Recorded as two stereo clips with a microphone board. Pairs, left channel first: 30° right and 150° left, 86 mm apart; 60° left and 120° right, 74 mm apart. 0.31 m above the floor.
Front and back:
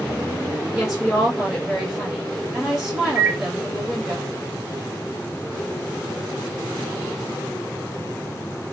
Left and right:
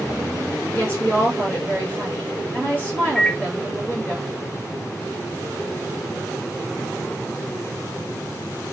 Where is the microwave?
145° left, 0.7 m.